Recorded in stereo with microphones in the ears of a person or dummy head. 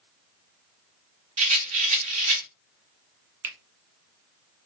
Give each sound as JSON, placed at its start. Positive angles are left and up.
{"t": 1.4, "sound": "a rattle", "side_deg": -30, "distance_m": 1.1}
{"t": 3.4, "sound": "a finger snap", "side_deg": -10, "distance_m": 0.6}